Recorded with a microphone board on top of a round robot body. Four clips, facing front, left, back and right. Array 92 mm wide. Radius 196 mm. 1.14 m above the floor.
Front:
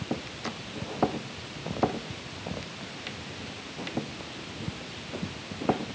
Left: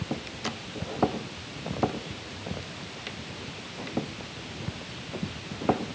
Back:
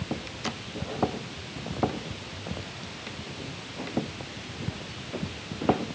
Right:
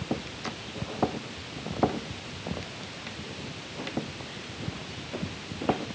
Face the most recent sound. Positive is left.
No sound to turn to.